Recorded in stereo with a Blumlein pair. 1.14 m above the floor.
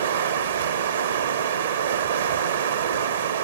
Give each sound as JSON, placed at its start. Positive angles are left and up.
{"t": 0.0, "sound": "running water", "azimuth_deg": -65, "distance_m": 0.7}